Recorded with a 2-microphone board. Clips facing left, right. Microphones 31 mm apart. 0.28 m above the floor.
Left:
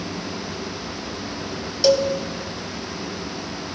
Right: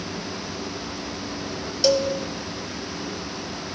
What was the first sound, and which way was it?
A cowbell, 10° left (ahead or behind).